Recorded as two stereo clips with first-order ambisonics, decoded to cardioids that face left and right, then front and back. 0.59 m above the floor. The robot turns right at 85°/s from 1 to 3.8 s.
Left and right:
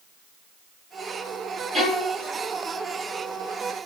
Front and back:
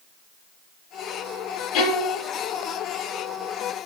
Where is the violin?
15° right, 0.8 m; by 2.2 s 30° left, 0.8 m.